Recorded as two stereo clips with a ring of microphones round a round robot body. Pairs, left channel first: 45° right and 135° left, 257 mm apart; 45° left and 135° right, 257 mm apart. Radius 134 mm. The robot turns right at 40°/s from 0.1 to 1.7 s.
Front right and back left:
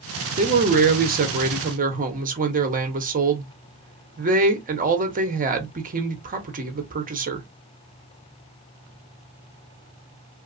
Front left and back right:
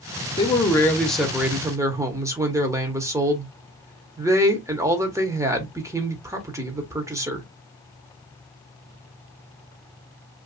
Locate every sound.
0.4 s a man speaking: 100° left, 0.9 m; by 7.5 s 155° left, 0.9 m